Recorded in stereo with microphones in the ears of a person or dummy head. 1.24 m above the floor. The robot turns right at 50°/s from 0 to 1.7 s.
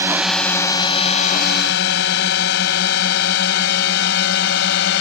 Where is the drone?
15° right (ahead or behind); by 5.0 s 70° left (ahead or behind).